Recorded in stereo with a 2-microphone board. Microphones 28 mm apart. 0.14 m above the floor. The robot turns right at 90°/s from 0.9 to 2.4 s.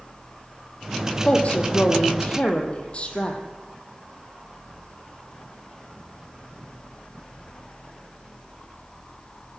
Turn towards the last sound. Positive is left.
turn(degrees=130)